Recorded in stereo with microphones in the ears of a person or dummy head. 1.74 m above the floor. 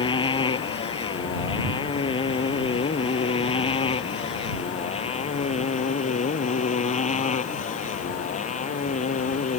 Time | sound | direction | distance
0.0 | a motorcycle | 30° left (ahead or behind) | ?